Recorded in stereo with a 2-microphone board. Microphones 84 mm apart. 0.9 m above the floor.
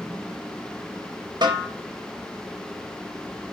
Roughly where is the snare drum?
Right.